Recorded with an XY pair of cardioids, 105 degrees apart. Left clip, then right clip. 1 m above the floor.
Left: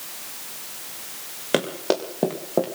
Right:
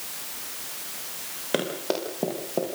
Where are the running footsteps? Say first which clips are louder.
Left 4 dB; 35° left, 8.5 m; by 2.6 s 45° left, 8 m.